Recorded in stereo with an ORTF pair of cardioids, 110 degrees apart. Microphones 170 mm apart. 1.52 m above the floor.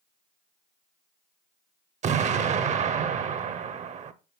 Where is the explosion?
45° right, 0.8 m.